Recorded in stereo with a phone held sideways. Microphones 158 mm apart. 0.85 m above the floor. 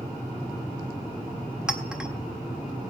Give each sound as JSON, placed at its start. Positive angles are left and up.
{"t": 1.7, "sound": "a clink", "side_deg": -5, "distance_m": 1.4}